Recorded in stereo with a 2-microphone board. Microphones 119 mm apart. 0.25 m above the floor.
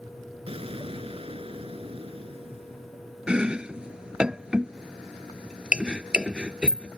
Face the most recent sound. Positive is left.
turn(degrees=-5)  # may be behind; listen again after turning